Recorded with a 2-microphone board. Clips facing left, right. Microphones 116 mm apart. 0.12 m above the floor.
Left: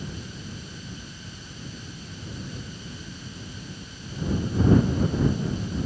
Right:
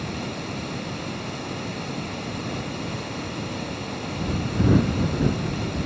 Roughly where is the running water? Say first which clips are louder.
Right 8 dB; right.